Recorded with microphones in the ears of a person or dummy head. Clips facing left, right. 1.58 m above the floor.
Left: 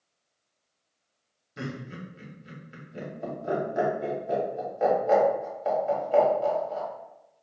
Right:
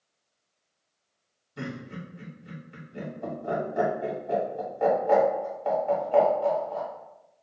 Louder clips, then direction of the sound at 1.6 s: Even; 20° left (ahead or behind).